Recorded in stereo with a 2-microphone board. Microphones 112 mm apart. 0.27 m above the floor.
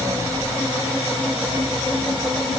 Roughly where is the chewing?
No chewing in this recording.